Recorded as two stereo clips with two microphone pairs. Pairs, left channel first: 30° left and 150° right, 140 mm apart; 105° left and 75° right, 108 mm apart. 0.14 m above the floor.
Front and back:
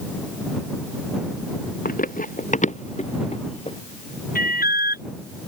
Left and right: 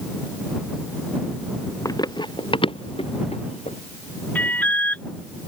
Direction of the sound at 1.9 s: 45° left.